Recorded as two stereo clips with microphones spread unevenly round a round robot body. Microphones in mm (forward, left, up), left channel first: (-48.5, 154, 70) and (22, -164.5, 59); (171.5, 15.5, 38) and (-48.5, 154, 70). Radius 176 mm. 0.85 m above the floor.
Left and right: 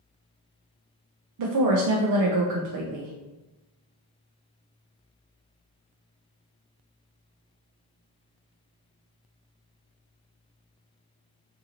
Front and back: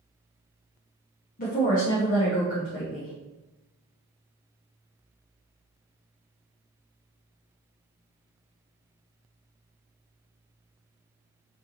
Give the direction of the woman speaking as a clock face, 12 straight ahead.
3 o'clock.